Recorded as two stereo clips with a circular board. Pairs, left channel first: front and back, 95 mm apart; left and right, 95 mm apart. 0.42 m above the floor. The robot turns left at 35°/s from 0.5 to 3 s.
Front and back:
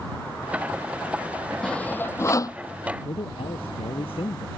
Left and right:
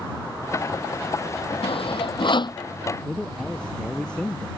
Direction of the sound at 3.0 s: 10° left.